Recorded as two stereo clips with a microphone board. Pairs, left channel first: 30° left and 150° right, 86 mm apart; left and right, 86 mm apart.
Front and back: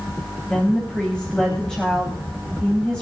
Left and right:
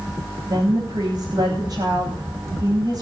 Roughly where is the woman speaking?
Ahead right.